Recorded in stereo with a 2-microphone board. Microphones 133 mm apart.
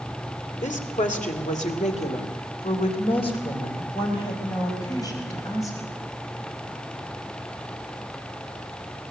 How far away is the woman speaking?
About 2.5 m.